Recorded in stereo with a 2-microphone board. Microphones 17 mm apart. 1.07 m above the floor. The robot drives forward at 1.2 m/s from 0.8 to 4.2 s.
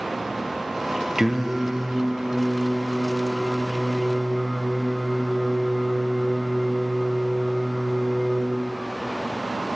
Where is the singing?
20° right (ahead or behind), 0.6 m; by 8.4 s 5° right (ahead or behind), 4 m.